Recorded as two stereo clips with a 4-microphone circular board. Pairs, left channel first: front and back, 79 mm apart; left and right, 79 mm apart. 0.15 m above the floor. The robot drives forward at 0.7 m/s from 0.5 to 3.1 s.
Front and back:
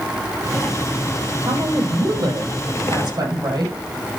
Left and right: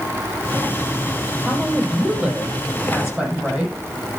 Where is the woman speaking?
170° right, 5.5 m; by 3.7 s 175° right, 6.5 m.